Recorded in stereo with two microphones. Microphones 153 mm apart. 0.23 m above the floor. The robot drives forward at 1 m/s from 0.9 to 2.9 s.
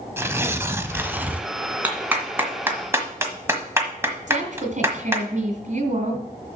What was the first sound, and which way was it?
Tearing paper, 15° right (ahead or behind).